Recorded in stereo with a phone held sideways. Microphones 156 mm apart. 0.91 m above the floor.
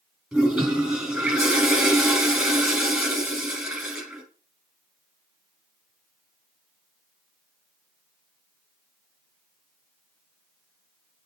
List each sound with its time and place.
0.3 s a toilet flushing: 5° right (ahead or behind), 4 m